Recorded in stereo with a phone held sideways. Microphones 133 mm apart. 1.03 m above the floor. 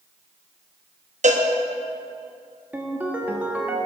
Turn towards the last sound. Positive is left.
turn(degrees=-10)  # may be behind; listen again after turning